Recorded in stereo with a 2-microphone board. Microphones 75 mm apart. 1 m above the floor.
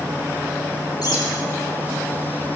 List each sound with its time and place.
1.0 s a bird: 60° left (ahead or behind), 8.5 m